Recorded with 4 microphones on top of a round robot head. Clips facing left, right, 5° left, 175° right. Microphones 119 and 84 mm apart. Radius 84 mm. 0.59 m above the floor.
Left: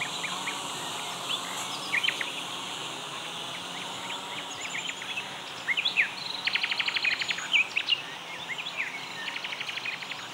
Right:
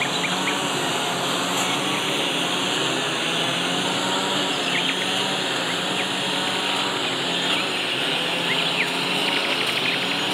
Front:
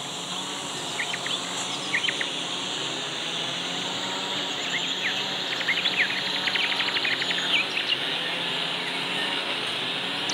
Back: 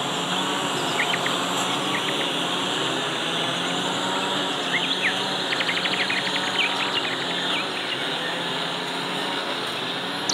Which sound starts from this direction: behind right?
A lawn mower, at 0.0 s.